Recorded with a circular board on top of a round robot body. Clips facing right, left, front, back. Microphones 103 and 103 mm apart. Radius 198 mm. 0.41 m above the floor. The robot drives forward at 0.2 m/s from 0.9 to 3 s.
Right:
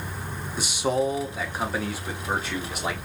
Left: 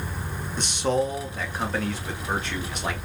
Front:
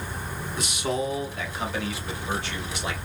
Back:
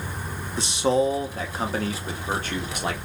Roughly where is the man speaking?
Behind.